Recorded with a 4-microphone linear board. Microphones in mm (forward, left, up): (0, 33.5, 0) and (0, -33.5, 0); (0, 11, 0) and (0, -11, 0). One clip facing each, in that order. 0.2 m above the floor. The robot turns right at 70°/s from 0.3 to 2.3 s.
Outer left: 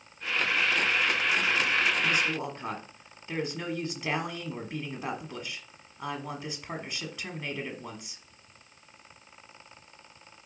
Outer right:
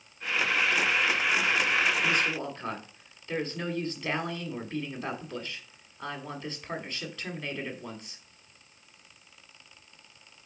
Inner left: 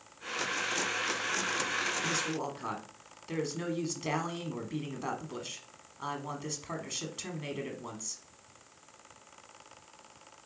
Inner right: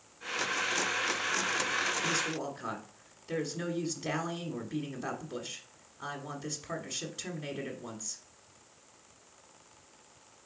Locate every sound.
2.0 s a woman speaking: centre (ahead or behind), 1.3 m; by 8.2 s 10° left (ahead or behind), 1.3 m